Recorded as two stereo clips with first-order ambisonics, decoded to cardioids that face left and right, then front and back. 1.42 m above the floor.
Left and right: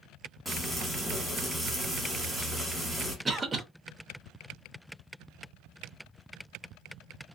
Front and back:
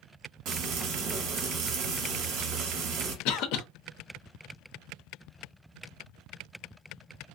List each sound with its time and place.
0.5 s frying: straight behind, 1.3 m
3.2 s a cough: 15° right, 0.5 m